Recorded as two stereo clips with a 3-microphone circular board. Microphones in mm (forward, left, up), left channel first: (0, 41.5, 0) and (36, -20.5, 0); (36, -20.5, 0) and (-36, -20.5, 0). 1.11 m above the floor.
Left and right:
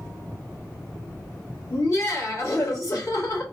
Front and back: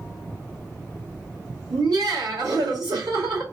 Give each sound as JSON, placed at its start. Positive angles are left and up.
{"t": 1.7, "sound": "laughter", "azimuth_deg": 165, "distance_m": 2.0}